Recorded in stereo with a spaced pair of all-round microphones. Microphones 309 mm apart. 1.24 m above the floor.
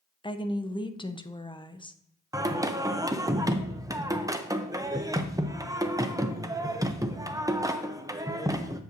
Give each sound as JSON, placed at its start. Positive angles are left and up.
{"t": 0.2, "sound": "a woman speaking", "side_deg": 15, "distance_m": 0.6}
{"t": 2.3, "sound": "singing", "side_deg": -10, "distance_m": 0.6}